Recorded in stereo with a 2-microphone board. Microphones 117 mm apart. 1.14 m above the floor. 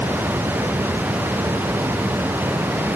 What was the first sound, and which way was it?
Only background noise.